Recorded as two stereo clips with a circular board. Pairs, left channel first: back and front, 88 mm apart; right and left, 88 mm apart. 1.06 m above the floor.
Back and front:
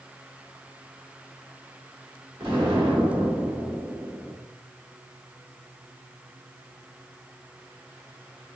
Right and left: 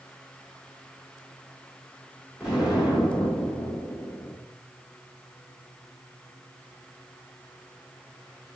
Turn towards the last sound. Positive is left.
turn(degrees=5)